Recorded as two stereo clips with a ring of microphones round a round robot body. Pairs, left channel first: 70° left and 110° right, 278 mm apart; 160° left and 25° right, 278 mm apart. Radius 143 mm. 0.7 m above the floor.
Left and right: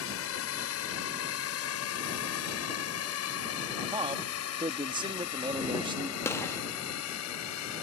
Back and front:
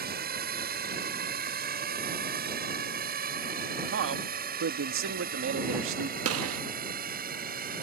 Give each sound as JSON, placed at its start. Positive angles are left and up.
{"t": 0.0, "sound": "a drone", "azimuth_deg": 30}
{"t": 3.9, "sound": "a man speaking", "azimuth_deg": -45}
{"t": 6.2, "sound": "a gunshot", "azimuth_deg": -10}